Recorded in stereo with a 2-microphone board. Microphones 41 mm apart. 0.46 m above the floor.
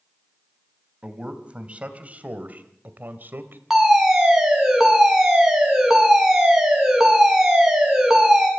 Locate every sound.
1.0 s a man speaking: 25° right (ahead or behind), 3 m; by 3.6 s 60° right (ahead or behind), 2 m
3.7 s a fire alarm: 10° right (ahead or behind), 7.5 m